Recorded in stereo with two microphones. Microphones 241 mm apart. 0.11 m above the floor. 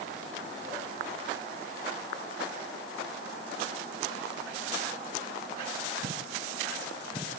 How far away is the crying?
No crying in this recording.